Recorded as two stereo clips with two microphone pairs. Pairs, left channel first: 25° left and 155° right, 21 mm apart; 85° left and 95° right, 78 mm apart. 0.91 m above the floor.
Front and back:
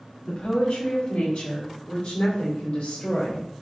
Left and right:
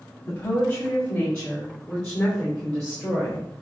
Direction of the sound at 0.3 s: 25° left.